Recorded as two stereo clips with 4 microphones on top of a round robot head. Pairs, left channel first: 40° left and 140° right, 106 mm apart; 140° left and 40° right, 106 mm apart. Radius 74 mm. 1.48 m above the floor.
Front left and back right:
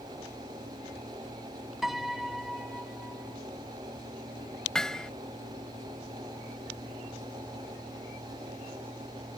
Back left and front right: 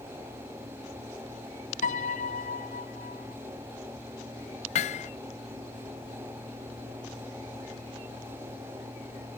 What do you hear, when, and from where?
1.8 s a piano: 130° left
4.8 s hammering: 125° left